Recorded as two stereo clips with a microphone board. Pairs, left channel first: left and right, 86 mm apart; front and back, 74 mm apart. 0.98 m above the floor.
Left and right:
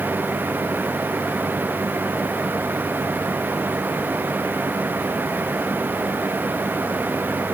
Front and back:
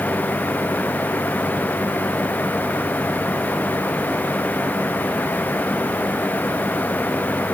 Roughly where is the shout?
I don't hear a shout.